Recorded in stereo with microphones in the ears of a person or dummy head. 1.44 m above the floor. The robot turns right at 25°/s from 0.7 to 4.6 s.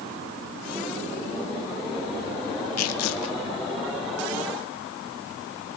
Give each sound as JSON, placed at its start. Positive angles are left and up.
{"t": 2.8, "sound": "tearing paper", "side_deg": 85, "distance_m": 1.4}